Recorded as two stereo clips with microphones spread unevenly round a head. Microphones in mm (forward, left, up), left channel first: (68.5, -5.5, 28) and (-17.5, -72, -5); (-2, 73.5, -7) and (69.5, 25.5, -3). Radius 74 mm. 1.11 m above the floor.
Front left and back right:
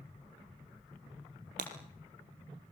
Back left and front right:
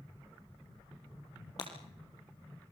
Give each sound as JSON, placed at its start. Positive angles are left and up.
{"t": 1.6, "sound": "breaking glass", "azimuth_deg": -155, "distance_m": 3.5}